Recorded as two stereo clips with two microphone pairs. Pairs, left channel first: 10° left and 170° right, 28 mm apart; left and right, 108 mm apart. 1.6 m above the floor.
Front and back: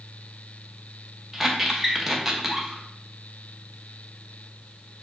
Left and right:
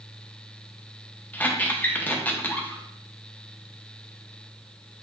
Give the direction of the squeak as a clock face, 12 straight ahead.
7 o'clock.